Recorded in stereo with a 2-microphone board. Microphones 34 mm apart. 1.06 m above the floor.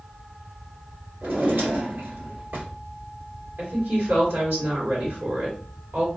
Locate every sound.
1.2 s a drawer: 75° right (ahead or behind), 1.9 m
3.6 s a woman speaking: 75° right (ahead or behind), 2.5 m